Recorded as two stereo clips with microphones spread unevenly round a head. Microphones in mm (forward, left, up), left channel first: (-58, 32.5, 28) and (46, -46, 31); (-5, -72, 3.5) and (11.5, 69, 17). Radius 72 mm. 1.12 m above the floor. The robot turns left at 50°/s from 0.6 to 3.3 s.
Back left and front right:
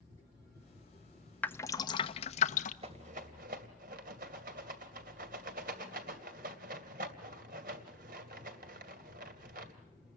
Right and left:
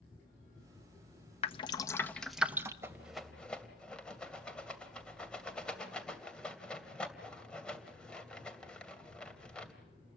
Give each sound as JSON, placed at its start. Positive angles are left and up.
{"t": 1.4, "sound": "dripping", "azimuth_deg": -140, "distance_m": 1.1}
{"t": 2.8, "sound": "a rattle", "azimuth_deg": 10, "distance_m": 2.5}